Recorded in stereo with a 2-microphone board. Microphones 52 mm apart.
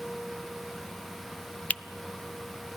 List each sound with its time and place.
1.7 s a finger snap: 25° left (ahead or behind), 0.5 m